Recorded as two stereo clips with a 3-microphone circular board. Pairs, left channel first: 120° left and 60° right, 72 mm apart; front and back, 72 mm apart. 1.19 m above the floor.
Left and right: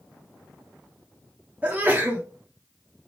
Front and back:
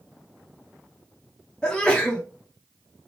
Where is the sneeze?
55° right, 0.6 m.